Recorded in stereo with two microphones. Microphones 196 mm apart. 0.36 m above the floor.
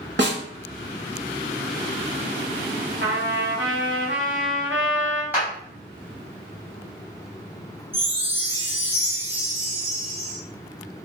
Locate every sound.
0.2 s a snare drum: 60° right (ahead or behind), 0.8 m
3.0 s a trumpet: 65° right (ahead or behind), 1.0 m
5.3 s a clap: 10° right (ahead or behind), 2.0 m
7.9 s a chime: 10° right (ahead or behind), 1.3 m